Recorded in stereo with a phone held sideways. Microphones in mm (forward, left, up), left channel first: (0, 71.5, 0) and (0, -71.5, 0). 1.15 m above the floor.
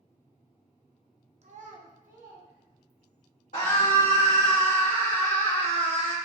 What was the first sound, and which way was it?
A child speaking, 55° right (ahead or behind).